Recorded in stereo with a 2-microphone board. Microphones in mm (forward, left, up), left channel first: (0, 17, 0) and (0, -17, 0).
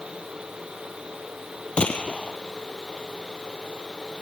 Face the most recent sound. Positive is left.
turn(degrees=30)  # may be behind; listen again after turning